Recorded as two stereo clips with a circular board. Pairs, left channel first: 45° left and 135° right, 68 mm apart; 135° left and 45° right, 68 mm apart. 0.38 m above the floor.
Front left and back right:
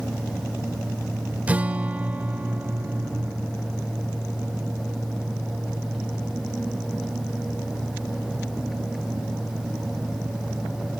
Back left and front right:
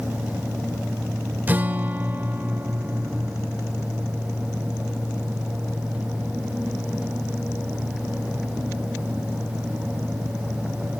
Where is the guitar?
85° right.